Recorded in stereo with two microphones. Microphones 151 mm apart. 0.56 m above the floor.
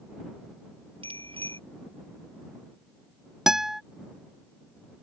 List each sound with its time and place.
1.0 s a bicycle bell: 35° right (ahead or behind)
3.5 s a guitar: 5° right (ahead or behind)